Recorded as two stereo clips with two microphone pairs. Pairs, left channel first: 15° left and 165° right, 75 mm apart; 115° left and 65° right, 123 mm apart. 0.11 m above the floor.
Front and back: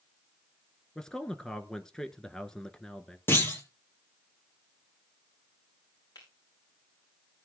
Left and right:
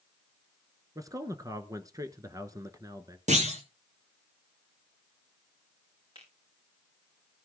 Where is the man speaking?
65° right, 1.1 m.